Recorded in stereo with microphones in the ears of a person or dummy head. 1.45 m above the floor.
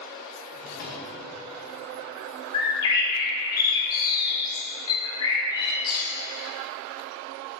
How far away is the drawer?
About 0.8 m.